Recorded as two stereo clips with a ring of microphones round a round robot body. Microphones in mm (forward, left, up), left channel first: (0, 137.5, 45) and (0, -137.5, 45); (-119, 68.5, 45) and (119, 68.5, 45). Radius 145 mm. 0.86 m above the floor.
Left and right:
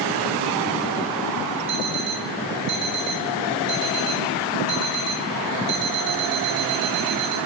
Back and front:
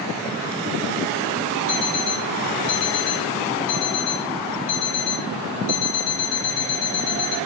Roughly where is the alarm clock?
Behind.